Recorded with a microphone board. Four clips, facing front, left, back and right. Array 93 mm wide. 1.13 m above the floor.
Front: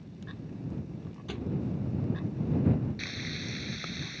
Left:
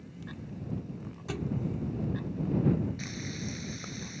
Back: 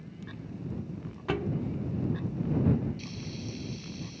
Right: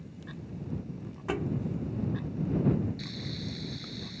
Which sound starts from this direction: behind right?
A thud, at 1.3 s.